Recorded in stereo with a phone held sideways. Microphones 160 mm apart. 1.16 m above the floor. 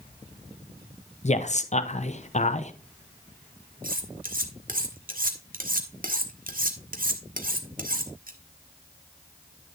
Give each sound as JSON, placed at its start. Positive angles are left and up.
{"t": 1.2, "sound": "a man speaking", "side_deg": 45, "distance_m": 0.9}
{"t": 3.8, "sound": "cutlery clinking", "side_deg": -65, "distance_m": 1.3}